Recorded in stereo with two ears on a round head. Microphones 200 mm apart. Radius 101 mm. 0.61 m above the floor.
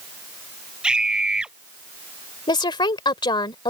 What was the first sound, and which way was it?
A scream, 5° right (ahead or behind).